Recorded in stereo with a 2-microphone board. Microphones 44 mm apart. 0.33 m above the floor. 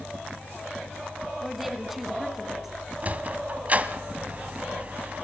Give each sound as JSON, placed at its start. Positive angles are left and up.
{"t": 1.4, "sound": "a woman speaking", "side_deg": -5, "distance_m": 3.0}
{"t": 3.0, "sound": "a sliding door", "side_deg": -35, "distance_m": 1.4}